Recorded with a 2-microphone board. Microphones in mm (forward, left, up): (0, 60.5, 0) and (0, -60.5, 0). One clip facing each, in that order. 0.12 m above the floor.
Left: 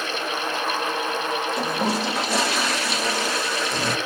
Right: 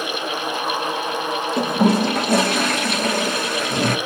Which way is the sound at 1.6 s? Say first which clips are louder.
Right 11 dB; 55° right (ahead or behind).